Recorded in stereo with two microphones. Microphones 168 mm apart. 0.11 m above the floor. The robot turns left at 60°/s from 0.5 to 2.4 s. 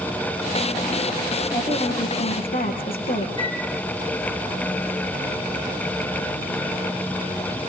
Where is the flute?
30° right (ahead or behind), 3.5 m.